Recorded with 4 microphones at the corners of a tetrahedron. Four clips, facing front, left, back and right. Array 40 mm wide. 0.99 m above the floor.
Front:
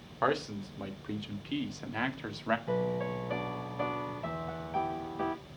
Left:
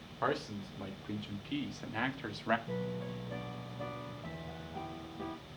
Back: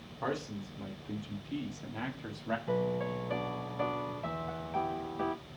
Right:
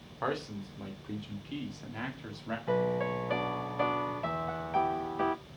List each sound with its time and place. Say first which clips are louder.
0.2 s a man speaking: even, front 6 dB; 5° left, 2.5 m; by 2.6 s 40° left, 1.6 m
2.7 s a piano: right 10 dB, even; 90° right, 0.6 m